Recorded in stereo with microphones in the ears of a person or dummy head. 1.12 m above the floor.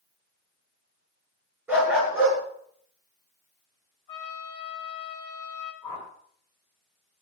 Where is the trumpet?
35° left (ahead or behind), 5 m.